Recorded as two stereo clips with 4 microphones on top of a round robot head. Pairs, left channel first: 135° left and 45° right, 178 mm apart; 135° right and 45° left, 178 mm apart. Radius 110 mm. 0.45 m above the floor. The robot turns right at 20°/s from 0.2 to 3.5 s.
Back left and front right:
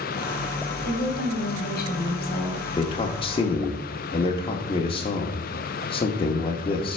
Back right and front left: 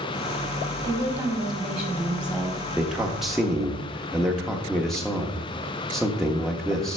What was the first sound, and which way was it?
A woman speaking, 115° left.